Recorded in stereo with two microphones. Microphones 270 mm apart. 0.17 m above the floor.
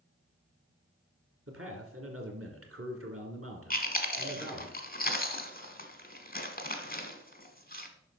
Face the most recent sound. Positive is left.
turn(degrees=35)  # may be behind; listen again after turning